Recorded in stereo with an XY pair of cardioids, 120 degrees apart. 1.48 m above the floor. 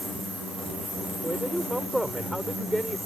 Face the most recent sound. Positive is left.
turn(degrees=-5)